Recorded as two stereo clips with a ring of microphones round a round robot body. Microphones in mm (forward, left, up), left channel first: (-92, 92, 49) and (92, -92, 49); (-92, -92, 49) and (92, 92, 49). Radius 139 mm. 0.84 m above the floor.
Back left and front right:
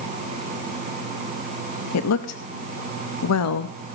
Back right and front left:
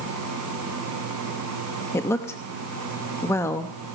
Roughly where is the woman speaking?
Behind left.